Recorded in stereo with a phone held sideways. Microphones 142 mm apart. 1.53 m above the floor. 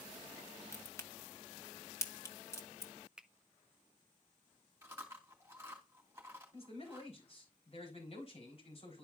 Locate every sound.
0.7 s a crack: 20° left (ahead or behind), 1.3 m
3.2 s a finger snap: 5° right (ahead or behind), 0.6 m
4.8 s chewing: 20° right (ahead or behind), 3 m
6.5 s a man speaking: 45° left (ahead or behind), 4.5 m